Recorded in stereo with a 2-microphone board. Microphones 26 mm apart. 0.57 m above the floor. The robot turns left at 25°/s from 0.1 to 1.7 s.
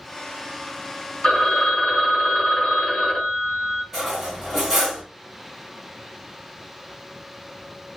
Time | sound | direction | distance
1.2 | a phone ringing | 45° left (ahead or behind) | 1.0 m
3.9 | cutlery clinking | 10° right (ahead or behind) | 1.5 m